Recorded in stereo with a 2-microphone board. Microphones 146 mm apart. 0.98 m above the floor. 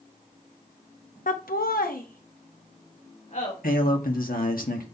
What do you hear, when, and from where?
1.3 s laughter: 60° left (ahead or behind), 0.6 m; by 3.5 s 55° left (ahead or behind), 3 m
3.6 s a man speaking: 75° left (ahead or behind), 1.6 m